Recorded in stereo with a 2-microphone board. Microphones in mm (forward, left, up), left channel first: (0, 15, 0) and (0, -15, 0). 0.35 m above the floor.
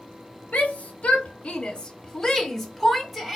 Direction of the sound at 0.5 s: 45° left (ahead or behind).